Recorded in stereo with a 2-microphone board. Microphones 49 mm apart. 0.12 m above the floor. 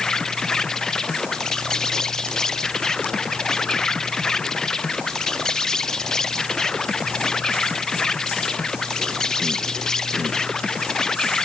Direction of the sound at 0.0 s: 10° left (ahead or behind).